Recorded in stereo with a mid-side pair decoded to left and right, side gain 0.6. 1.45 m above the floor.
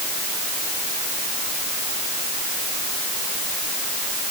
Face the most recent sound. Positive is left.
No sound to turn to.